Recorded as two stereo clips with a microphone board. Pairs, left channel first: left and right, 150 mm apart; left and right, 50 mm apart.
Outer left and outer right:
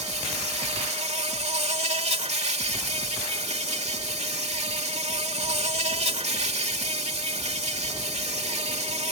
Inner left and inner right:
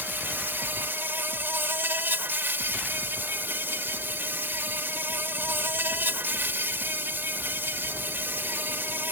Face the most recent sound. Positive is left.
turn(degrees=-50)  # may be behind; listen again after turning